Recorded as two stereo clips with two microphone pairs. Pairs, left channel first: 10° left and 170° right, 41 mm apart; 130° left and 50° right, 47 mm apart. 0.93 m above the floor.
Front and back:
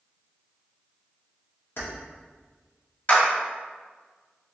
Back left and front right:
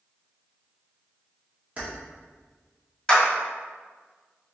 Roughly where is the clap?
Ahead left.